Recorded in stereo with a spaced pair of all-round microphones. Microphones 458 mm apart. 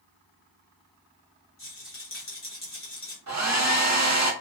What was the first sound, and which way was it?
A rattle, 30° left (ahead or behind).